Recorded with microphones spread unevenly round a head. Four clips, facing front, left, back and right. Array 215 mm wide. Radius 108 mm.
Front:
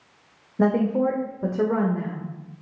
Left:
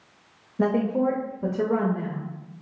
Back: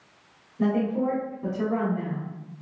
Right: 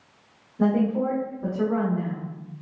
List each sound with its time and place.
0.6 s a woman speaking: 30° left, 0.7 m